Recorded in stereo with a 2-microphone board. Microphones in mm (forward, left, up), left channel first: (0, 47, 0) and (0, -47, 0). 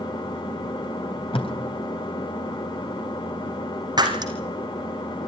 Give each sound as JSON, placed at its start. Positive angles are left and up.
{"t": 0.0, "sound": "an engine running", "side_deg": 55, "distance_m": 2.0}
{"t": 1.3, "sound": "tape being pulled", "side_deg": 70, "distance_m": 3.5}
{"t": 4.0, "sound": "breaking glass", "side_deg": -50, "distance_m": 4.0}